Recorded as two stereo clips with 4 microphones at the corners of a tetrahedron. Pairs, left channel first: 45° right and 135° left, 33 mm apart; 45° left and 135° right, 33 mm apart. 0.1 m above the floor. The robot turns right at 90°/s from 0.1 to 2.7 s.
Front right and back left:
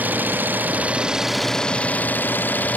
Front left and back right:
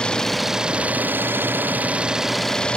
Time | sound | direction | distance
0.0 | an engine running | 110° left | ?